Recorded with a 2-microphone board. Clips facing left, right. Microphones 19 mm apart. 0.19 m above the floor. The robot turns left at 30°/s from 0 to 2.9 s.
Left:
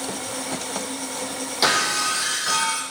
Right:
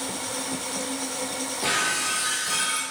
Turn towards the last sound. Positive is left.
turn(degrees=40)